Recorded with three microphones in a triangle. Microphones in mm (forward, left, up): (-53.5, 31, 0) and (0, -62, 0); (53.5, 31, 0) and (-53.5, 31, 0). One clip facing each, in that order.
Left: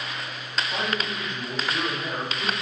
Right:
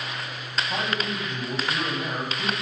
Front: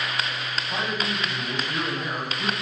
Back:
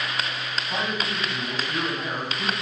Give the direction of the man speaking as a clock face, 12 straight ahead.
3 o'clock.